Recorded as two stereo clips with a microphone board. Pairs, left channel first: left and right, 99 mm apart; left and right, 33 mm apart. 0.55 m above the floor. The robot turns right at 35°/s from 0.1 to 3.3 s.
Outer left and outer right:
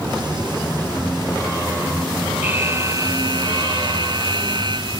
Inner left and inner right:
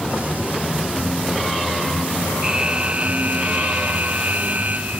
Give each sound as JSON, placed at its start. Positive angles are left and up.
{"t": 2.4, "sound": "an alarm", "azimuth_deg": -160}